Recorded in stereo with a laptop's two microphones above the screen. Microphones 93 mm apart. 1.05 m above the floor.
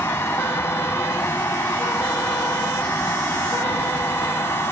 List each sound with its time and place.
0.0 s a fan: 25° left (ahead or behind)